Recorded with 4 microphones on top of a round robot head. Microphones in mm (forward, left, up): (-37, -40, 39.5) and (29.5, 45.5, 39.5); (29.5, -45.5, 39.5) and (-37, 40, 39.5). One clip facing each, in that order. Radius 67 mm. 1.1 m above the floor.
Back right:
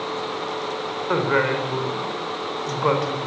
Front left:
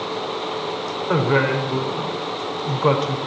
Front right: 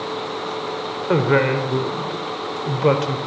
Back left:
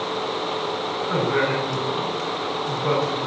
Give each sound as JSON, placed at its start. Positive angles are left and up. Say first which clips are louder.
{"t": 1.1, "sound": "a woman speaking", "louder": "front left 2 dB, front right 5 dB", "azimuth_deg": -30, "distance_m": 4.0}